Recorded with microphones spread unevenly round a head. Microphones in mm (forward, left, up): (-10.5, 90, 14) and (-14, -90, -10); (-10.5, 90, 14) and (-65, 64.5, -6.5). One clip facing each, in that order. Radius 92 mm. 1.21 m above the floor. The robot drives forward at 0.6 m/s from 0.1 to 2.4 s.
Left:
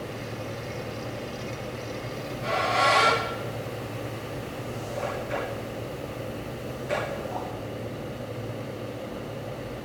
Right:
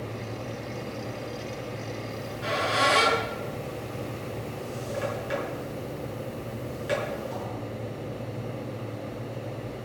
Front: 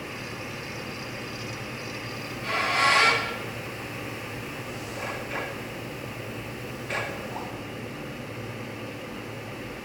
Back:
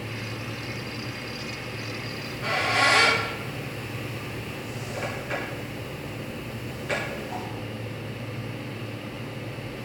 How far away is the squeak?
About 7 m.